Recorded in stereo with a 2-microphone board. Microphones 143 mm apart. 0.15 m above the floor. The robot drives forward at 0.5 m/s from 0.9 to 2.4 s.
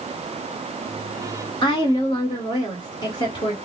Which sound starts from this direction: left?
A woman speaking, at 1.6 s.